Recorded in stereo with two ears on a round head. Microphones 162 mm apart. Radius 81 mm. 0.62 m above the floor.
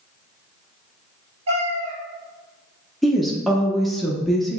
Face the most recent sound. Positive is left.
turn(degrees=0)  # may be behind; listen again after turning